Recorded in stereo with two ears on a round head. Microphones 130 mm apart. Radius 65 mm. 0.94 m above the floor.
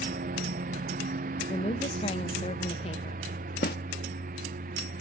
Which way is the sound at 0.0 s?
55° right (ahead or behind).